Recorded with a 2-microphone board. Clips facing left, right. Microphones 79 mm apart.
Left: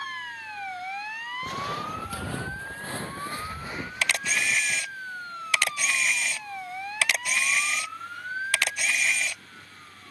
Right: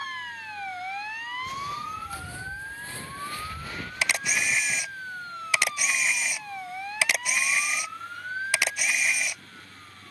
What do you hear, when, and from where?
1.4 s footsteps: 65° left (ahead or behind); by 4.8 s centre (ahead or behind)
4.0 s a camera shutter: 15° right (ahead or behind)